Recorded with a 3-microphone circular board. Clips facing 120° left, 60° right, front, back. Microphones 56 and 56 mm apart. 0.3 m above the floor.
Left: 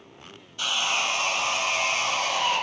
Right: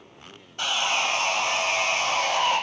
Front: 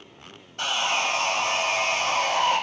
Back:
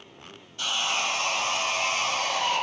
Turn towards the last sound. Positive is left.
turn(degrees=-25)